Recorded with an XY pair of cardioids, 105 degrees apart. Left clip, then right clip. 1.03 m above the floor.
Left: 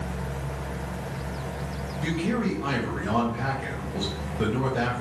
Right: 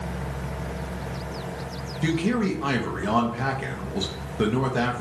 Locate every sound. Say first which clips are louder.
2.0 s a man speaking: right 3 dB; 45° right, 0.8 m